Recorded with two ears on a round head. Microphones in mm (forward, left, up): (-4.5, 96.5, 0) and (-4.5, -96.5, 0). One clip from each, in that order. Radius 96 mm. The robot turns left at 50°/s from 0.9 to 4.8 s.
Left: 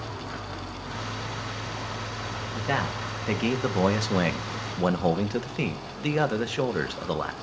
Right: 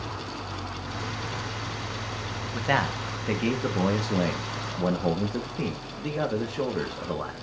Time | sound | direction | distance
0.0 | an engine running | 95° right | 4.5 m
2.5 | a man speaking | 150° right | 1.6 m